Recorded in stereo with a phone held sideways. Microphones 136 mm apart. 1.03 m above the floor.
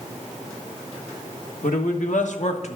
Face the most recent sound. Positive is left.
turn(degrees=50)  # may be behind; listen again after turning